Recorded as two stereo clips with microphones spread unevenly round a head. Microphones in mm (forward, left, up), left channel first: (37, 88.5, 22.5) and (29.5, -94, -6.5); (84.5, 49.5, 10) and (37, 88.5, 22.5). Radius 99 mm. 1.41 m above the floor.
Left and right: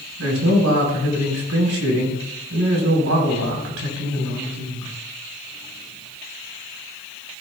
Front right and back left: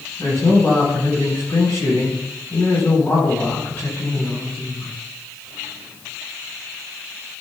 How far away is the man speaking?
About 4 m.